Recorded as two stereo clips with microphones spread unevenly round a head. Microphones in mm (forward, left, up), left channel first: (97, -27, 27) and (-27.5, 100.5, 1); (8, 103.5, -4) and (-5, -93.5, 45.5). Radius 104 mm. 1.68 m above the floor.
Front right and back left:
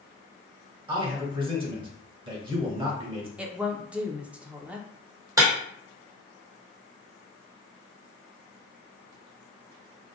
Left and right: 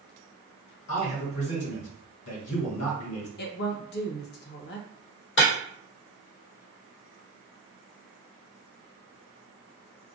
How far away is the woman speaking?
About 0.7 m.